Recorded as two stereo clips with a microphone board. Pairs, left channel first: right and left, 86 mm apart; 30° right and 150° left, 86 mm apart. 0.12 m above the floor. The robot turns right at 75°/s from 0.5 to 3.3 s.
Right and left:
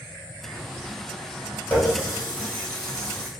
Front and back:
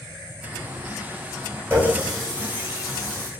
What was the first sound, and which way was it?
A running tap, 155° right.